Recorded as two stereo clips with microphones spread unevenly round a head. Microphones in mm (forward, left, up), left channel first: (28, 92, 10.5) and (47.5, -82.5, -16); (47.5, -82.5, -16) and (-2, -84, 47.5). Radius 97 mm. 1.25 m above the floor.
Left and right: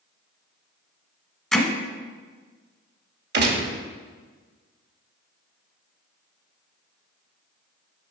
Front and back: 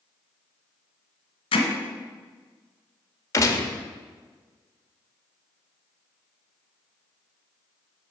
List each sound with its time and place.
1.5 s hammering: 20° left, 1.1 m
3.3 s a gunshot: 55° right, 1.2 m